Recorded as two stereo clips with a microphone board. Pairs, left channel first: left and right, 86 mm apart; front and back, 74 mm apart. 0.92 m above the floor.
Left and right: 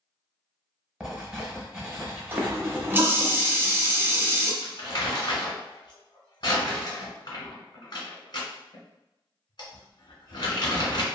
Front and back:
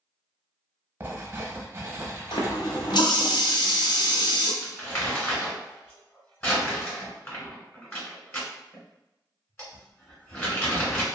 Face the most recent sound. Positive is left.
turn(degrees=55)